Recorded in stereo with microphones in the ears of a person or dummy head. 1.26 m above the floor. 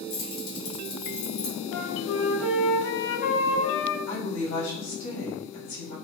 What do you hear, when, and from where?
0.1 s keys jangling: 70° left (ahead or behind), 1.5 m
1.7 s a flute: 40° left (ahead or behind), 1.9 m
4.1 s a woman speaking: 80° left, 1.6 m